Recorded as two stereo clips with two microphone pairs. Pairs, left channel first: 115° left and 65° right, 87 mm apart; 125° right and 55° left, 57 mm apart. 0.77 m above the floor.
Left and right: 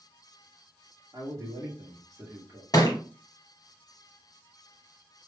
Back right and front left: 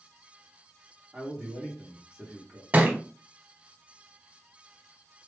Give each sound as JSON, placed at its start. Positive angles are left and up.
{"t": 1.1, "sound": "a man speaking", "azimuth_deg": -15, "distance_m": 1.7}
{"t": 2.7, "sound": "a thud", "azimuth_deg": 105, "distance_m": 0.8}